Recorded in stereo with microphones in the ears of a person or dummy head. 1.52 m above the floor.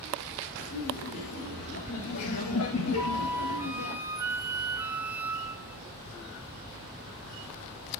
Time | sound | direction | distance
0.6 | laughter | 50° left (ahead or behind) | 5.5 m
3.0 | a flute | 15° right (ahead or behind) | 0.8 m